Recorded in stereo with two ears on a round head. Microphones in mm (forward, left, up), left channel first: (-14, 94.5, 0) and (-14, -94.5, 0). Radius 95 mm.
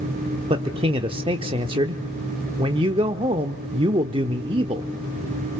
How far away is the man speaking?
About 0.9 m.